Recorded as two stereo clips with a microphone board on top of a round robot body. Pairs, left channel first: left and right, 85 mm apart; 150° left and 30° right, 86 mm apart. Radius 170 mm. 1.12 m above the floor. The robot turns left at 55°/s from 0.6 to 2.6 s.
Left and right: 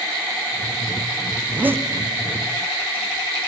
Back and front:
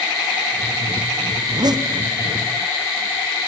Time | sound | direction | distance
1.4 | a zipper | 15° right | 0.9 m